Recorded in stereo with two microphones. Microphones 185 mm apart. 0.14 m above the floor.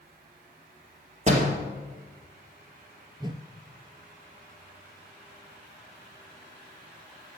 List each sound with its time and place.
1.3 s a door slam: 35° right (ahead or behind), 2.5 m
3.2 s a whoosh: 25° right (ahead or behind), 0.6 m